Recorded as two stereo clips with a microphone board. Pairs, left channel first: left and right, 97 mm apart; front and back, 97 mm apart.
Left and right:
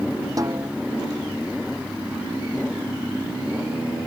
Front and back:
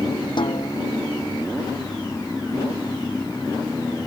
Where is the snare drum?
35° right.